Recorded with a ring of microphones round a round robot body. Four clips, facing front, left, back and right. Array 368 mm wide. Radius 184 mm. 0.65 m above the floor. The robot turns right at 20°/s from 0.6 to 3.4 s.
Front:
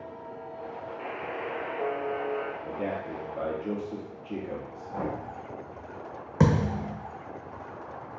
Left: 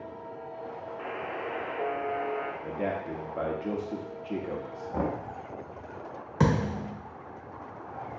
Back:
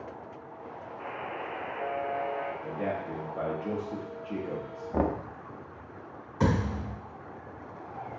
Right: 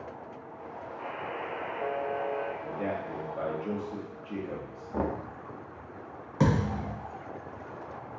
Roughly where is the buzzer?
Ahead left.